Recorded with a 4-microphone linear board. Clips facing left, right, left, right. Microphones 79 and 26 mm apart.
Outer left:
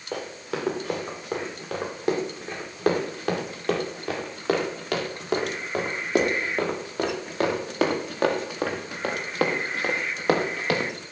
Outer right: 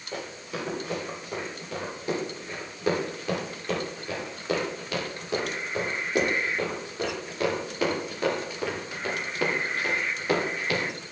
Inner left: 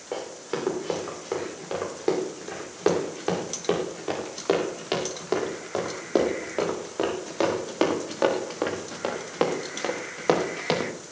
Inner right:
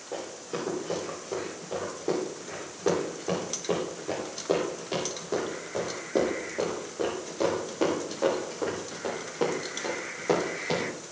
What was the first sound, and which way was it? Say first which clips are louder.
Running footsteps: outer left 4 dB, inner left 4 dB; 85° left.